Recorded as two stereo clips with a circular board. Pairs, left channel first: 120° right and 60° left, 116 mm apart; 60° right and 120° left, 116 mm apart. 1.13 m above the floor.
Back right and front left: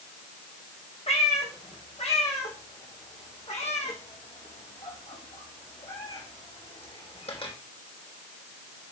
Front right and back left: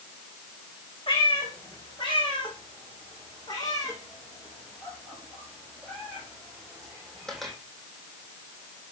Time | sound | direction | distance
1.1 | a cat meowing | 100° right | 6 m